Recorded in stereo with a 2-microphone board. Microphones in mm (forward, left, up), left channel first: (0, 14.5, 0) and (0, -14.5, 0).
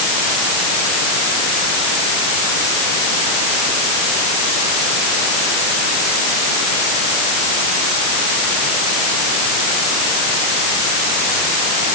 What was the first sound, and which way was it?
Only background noise.